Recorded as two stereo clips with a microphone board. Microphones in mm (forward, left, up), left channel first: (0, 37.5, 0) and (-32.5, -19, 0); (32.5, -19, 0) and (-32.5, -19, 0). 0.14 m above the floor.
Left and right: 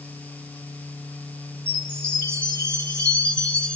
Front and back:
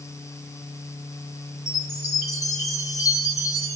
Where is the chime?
10° right, 3 m.